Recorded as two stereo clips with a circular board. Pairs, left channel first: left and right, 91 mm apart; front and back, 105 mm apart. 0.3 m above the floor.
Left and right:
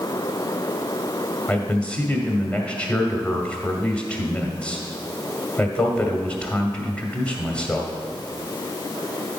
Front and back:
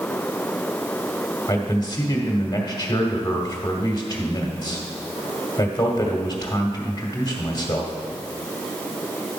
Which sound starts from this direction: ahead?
A man speaking, at 1.5 s.